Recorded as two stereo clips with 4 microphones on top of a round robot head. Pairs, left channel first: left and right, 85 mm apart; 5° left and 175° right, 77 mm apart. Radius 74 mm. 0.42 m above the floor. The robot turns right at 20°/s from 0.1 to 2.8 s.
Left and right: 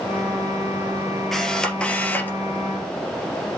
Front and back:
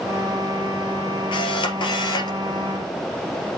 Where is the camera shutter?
5° left, 2.5 m; by 2.4 s 25° left, 2.5 m.